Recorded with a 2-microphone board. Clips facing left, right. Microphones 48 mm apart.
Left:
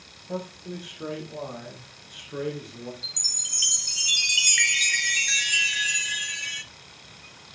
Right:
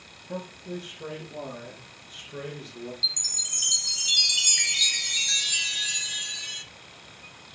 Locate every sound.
0.3 s a man speaking: 40° left (ahead or behind), 7.5 m; by 2.9 s 35° left (ahead or behind), 5 m
3.0 s a chime: 50° left (ahead or behind), 0.6 m